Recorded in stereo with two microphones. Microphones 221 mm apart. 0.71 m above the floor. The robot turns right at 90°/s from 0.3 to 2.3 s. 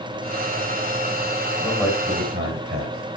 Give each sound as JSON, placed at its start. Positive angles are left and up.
{"t": 1.6, "sound": "a man speaking", "azimuth_deg": 170, "distance_m": 3.5}